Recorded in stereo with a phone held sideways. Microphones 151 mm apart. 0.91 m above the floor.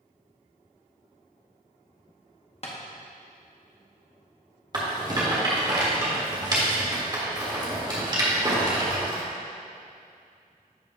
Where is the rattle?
30° right (ahead or behind), 1.7 m.